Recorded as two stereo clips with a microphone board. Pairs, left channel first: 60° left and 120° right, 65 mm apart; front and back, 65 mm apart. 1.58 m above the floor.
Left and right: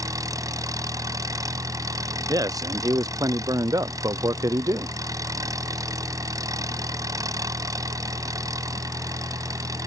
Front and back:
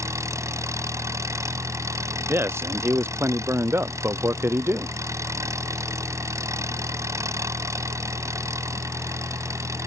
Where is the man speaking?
130° right.